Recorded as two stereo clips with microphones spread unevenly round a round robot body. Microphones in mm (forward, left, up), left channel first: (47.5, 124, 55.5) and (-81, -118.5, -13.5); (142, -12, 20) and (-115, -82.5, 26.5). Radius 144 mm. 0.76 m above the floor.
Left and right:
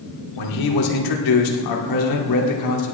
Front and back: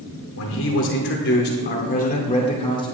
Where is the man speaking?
55° left, 2.5 m; by 3.0 s 90° left, 2.5 m.